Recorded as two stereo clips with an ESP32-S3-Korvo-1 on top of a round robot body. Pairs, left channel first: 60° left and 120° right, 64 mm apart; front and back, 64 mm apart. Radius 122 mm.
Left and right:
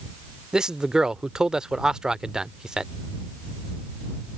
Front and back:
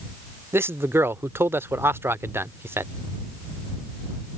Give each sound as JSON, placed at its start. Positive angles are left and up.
{"t": 0.5, "sound": "a man speaking", "azimuth_deg": 165}